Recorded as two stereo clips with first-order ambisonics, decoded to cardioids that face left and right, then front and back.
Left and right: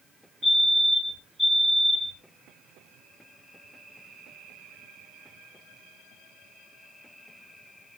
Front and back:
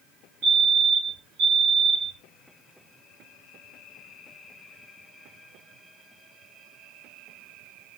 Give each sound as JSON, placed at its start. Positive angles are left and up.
{"t": 0.4, "sound": "a fire alarm", "azimuth_deg": -175, "distance_m": 5.5}